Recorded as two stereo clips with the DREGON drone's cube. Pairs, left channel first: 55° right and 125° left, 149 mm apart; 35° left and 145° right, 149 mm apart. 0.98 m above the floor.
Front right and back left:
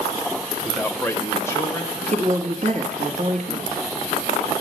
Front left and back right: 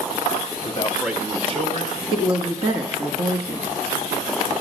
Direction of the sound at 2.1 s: 160° left.